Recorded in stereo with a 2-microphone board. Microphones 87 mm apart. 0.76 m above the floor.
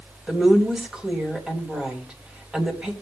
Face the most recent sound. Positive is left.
turn(degrees=-10)  # may be behind; listen again after turning